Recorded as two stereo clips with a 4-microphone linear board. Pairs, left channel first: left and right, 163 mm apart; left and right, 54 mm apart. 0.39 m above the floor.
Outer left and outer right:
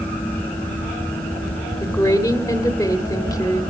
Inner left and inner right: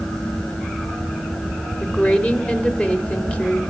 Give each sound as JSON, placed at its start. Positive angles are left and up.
{"t": 1.8, "sound": "a woman speaking", "side_deg": 20, "distance_m": 1.3}